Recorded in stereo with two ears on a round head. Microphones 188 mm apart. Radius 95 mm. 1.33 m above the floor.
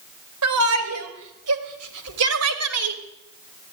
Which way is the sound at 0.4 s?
85° right.